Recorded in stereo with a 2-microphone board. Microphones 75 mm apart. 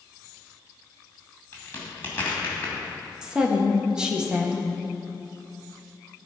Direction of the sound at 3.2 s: 10° right (ahead or behind).